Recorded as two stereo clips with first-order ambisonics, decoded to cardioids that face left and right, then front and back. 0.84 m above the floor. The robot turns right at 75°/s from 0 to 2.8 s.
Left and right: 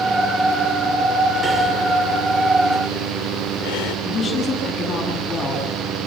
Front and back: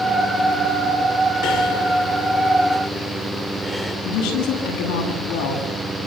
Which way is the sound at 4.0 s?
20° left.